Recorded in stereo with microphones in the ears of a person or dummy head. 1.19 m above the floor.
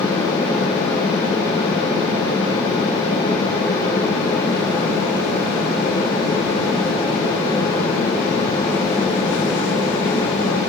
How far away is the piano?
I don't hear a piano.